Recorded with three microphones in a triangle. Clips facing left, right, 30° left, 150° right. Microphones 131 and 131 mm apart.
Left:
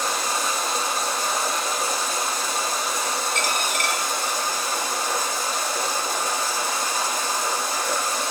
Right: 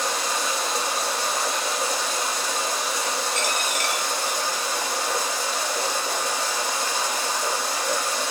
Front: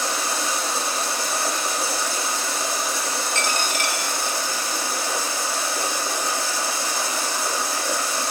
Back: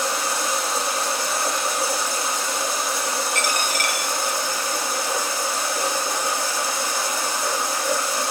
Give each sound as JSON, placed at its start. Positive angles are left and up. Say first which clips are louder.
{"t": 0.0, "sound": "running water", "louder": "left 1 dB, back 1 dB", "azimuth_deg": 135, "distance_m": 4.5}
{"t": 3.4, "sound": "a dropped coin", "louder": "left 1 dB, back 1 dB", "azimuth_deg": 95, "distance_m": 1.9}